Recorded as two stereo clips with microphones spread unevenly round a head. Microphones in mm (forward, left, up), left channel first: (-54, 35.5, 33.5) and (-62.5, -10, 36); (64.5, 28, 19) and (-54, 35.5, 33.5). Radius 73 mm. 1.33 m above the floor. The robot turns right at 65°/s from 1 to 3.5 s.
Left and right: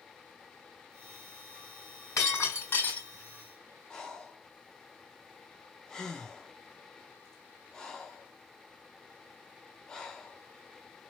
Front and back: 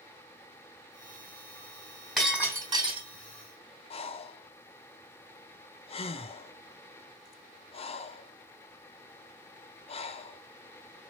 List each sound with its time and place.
2.2 s breaking glass: 90° left, 3.5 m; by 3.1 s 145° left, 3.5 m
3.9 s breathing: 10° left, 0.6 m